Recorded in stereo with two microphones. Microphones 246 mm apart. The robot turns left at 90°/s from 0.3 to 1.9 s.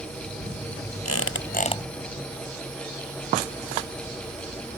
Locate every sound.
1.1 s a squeak: 85° left; by 1.8 s 15° left